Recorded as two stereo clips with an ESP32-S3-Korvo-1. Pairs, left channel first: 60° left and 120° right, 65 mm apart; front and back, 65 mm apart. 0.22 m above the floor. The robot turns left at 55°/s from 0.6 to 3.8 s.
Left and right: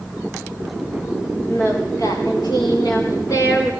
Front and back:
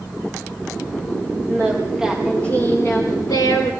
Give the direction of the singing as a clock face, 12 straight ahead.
8 o'clock.